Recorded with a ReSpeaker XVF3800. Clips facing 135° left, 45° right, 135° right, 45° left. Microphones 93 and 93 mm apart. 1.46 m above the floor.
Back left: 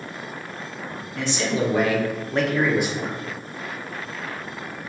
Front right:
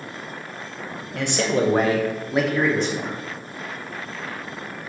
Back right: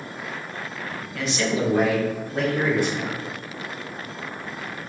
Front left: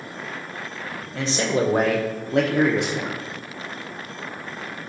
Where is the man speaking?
20° right, 0.7 m; by 3.2 s 65° left, 0.8 m.